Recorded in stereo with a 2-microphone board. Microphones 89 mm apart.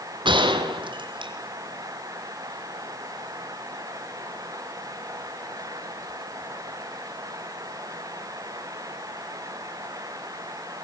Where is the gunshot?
70° right (ahead or behind), 3.5 m.